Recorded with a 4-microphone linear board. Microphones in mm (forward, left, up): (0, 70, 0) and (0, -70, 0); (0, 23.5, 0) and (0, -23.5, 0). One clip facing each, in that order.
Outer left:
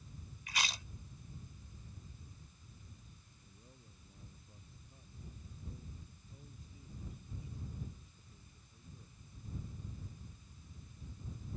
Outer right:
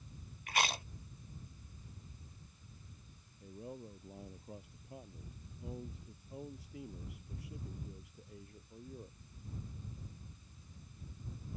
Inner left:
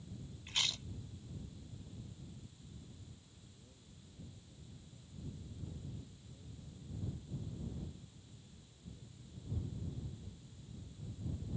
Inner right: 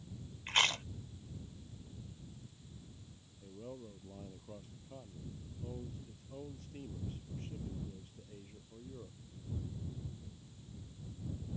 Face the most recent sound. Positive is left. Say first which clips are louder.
# outer right 18 dB, inner right 14 dB
turn(degrees=-85)